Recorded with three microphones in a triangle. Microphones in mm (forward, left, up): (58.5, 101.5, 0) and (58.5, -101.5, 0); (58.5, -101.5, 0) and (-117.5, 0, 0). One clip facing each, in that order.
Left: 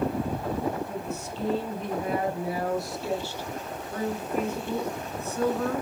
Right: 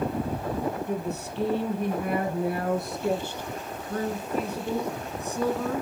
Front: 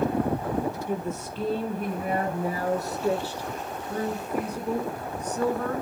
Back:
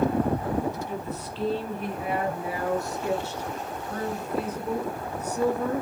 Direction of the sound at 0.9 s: 70° right.